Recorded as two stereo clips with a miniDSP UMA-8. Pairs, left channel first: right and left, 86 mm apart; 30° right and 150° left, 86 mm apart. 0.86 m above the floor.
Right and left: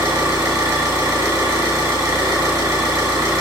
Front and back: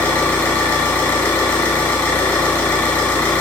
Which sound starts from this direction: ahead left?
An engine running, at 0.0 s.